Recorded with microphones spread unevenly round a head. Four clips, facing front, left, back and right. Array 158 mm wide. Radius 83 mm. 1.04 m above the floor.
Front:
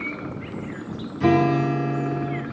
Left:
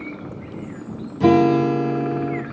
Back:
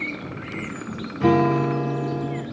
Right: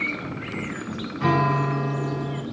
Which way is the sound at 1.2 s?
100° left.